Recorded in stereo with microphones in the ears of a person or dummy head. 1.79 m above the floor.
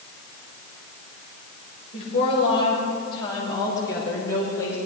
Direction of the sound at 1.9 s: 35° left (ahead or behind).